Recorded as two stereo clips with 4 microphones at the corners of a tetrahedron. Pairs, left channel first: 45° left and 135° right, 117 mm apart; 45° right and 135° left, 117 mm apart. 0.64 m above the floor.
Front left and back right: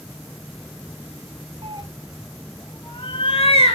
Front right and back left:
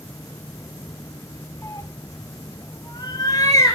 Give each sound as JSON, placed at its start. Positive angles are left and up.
{"t": 1.6, "sound": "a cat meowing", "azimuth_deg": -110, "distance_m": 0.9}